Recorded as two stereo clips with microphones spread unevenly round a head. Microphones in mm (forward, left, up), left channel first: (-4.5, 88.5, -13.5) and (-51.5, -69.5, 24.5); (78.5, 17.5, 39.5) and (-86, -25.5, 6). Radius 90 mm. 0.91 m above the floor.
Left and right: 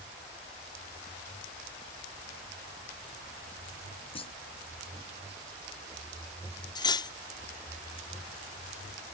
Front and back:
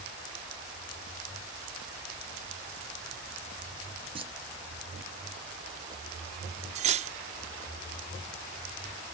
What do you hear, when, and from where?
4.2 s a clunk: 130° left
6.8 s cutlery clinking: 140° left